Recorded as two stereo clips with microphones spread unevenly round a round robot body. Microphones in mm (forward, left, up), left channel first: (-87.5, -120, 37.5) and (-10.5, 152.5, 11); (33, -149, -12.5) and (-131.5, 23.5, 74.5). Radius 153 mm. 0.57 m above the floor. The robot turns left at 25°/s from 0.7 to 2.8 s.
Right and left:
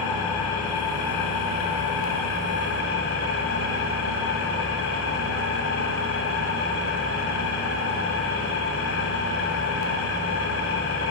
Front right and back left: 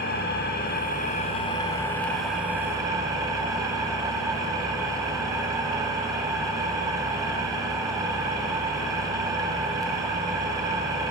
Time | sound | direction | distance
0.0 | an engine running | 95° right | 1.9 m